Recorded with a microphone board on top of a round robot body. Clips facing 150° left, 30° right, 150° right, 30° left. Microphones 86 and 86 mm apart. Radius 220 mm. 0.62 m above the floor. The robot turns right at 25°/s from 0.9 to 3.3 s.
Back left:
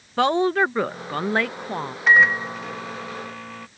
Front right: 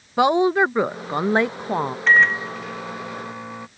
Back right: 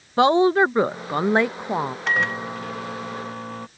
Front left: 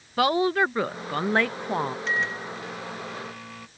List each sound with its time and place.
0.2 s a woman speaking: 100° right; by 2.0 s 75° right
2.1 s a microwave: 135° right; by 3.7 s 100° right